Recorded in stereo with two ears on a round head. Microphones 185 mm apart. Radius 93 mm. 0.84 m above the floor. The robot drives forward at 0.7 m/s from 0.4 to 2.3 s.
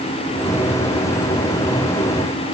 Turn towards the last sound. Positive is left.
No sound to turn to.